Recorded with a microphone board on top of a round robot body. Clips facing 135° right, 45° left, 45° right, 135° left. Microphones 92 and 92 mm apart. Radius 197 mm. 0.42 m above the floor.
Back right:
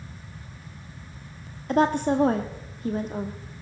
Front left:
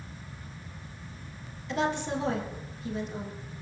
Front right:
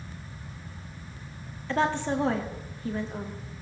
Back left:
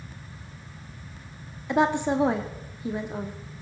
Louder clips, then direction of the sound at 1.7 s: Back right 8 dB, back left 4 dB; 155° right.